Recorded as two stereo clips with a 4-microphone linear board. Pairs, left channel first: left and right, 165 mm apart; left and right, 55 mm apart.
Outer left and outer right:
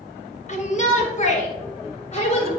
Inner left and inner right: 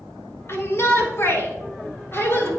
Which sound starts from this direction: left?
A shout, at 0.5 s.